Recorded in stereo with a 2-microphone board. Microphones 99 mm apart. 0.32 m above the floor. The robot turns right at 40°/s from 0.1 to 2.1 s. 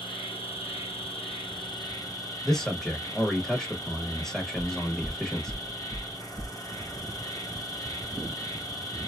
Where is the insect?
65° left, 1.1 m; by 9.1 s 145° left, 1.1 m.